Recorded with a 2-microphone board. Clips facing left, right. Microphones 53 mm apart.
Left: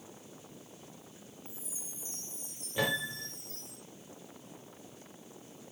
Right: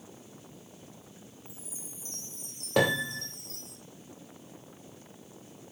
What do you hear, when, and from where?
1.4 s a chime: 60° right (ahead or behind), 2.5 m
2.8 s a piano: 85° right, 2 m